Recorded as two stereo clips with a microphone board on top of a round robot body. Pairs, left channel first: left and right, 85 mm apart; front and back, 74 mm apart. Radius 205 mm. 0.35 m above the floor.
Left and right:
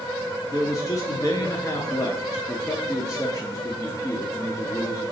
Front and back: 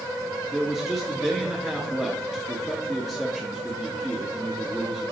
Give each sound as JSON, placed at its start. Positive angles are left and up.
{"t": 0.5, "sound": "a man speaking", "azimuth_deg": 95, "distance_m": 1.4}